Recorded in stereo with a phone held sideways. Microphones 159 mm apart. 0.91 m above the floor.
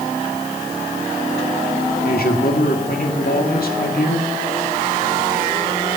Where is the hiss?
I don't hear a hiss.